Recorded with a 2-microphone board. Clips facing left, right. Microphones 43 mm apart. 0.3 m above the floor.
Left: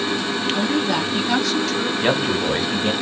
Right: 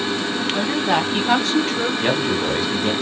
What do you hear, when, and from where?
0.5 s a woman speaking: 55° right (ahead or behind), 2 m; by 1.9 s 25° right (ahead or behind), 1.4 m
2.0 s a man speaking: 15° left (ahead or behind), 1.4 m